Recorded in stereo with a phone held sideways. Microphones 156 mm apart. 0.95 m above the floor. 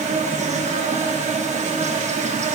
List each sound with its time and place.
0.0 s an insect: 45° right (ahead or behind), 1.2 m